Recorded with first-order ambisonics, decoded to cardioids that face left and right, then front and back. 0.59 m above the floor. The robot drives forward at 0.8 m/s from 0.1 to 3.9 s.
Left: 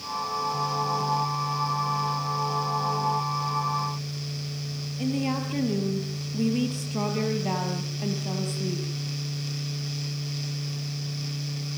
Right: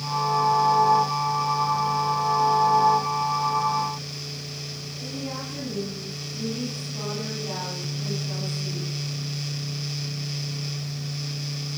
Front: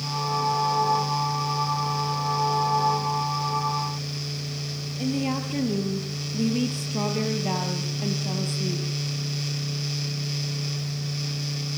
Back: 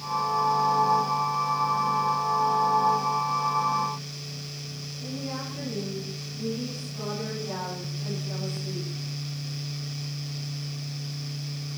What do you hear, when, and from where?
5.0 s a woman speaking: 40° left, 4.5 m